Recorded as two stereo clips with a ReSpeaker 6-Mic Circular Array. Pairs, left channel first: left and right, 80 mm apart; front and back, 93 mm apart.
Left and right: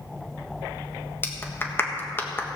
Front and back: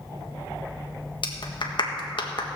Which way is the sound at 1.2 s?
30° left.